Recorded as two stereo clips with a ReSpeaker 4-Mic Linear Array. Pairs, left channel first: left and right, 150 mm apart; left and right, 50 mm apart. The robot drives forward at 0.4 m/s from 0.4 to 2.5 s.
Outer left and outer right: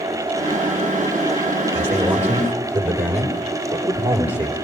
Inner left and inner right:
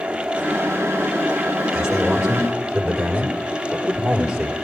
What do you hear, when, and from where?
1.7 s a man speaking: 10° right (ahead or behind), 5 m